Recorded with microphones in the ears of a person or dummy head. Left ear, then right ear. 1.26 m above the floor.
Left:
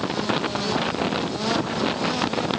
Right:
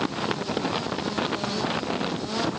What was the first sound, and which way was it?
Only background noise.